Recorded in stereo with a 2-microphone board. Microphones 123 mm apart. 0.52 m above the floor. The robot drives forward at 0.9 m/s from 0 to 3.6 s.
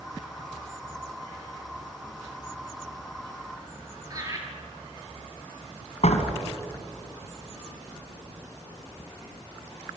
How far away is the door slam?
About 3 m.